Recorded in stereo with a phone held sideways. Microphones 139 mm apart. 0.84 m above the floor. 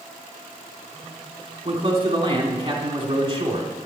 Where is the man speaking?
35° right (ahead or behind), 3 m.